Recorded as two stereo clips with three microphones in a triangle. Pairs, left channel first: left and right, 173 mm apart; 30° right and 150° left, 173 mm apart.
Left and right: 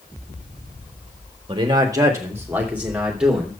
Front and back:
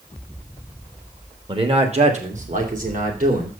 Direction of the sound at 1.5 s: 150° right.